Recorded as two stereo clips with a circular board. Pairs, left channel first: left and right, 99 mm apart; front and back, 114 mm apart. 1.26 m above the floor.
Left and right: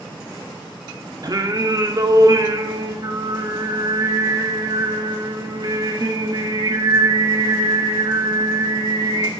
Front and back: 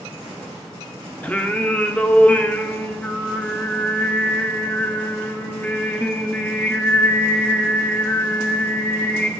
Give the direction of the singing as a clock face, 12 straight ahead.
2 o'clock.